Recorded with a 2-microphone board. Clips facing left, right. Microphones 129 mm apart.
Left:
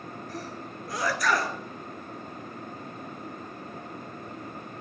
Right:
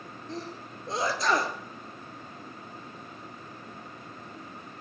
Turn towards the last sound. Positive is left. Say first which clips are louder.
# right 3 dB
turn(degrees=-25)  # may be behind; listen again after turning